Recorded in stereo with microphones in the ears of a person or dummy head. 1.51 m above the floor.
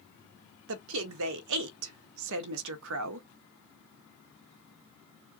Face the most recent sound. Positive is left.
turn(degrees=-70)  # may be behind; listen again after turning